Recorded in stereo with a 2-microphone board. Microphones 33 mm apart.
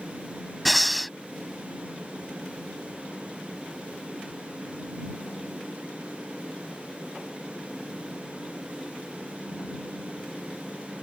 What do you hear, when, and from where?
0.7 s breathing: centre (ahead or behind)